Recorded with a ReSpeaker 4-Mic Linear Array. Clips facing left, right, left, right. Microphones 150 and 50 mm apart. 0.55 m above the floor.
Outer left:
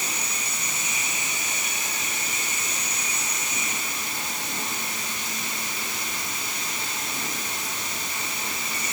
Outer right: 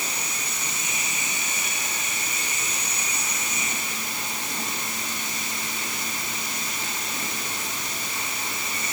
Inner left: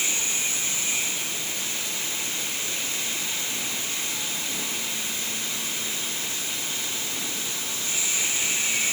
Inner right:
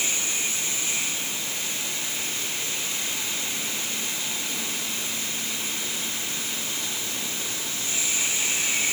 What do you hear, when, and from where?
Only background noise.